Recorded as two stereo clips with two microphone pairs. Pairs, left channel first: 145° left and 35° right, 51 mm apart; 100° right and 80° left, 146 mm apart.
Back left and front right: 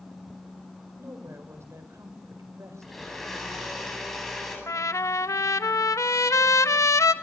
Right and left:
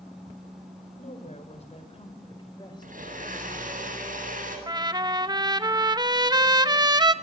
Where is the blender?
55° left, 8.5 m.